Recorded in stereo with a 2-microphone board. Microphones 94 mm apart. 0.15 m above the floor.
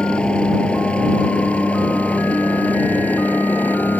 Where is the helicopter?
10° left (ahead or behind); by 4.0 s 20° left (ahead or behind).